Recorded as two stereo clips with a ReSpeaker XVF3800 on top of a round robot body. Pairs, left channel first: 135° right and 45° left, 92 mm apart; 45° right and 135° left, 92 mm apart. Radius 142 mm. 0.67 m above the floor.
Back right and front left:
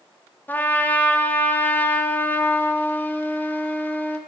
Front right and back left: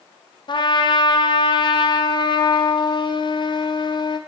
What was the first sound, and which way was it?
A trumpet, 65° right.